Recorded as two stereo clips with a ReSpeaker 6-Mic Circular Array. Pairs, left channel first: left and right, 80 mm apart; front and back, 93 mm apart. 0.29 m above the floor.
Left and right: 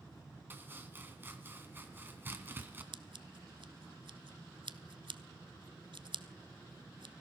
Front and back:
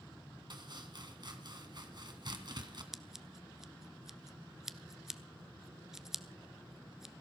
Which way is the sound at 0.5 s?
150° right.